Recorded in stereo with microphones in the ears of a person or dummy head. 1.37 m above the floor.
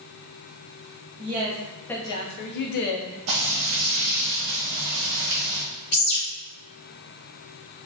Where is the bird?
35° left (ahead or behind), 1.5 m.